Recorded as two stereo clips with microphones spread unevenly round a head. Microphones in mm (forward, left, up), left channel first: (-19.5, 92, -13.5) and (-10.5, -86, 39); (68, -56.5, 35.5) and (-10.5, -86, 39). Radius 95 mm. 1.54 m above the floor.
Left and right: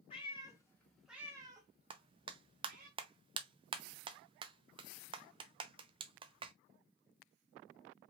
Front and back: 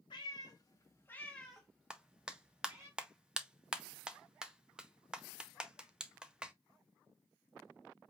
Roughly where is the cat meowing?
Ahead.